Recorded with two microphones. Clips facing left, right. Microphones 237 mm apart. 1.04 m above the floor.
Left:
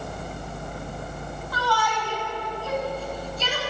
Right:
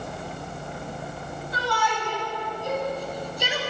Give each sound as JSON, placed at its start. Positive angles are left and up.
{"t": 1.5, "sound": "a shout", "side_deg": -25, "distance_m": 8.0}